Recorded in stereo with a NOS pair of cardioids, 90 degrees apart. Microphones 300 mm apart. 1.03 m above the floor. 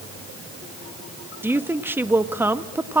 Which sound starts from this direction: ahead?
A woman speaking, at 1.4 s.